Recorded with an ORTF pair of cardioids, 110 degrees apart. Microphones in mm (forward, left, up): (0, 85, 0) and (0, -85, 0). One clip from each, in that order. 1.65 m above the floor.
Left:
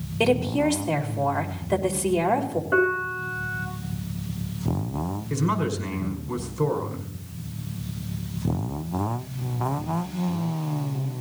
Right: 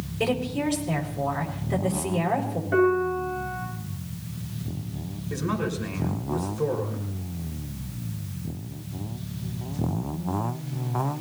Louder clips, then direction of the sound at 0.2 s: Left 5 dB; 60° left.